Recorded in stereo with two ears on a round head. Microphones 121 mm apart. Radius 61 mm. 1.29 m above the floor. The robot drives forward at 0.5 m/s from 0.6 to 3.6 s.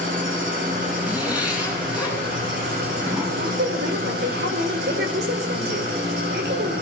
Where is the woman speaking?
85° right, 5 m.